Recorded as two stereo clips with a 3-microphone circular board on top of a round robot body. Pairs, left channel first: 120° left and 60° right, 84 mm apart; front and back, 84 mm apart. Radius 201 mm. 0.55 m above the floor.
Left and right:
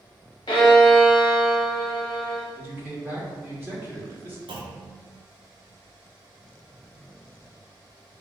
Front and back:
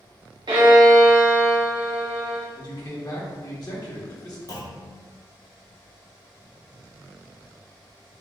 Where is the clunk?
45° right, 0.7 m.